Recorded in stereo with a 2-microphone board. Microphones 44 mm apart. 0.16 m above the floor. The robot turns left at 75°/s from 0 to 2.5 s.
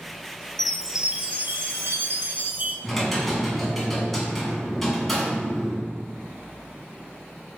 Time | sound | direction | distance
0.6 | a chime | 10° left | 0.6 m
2.8 | typing on a keyboard | 5° left (ahead or behind) | 1.5 m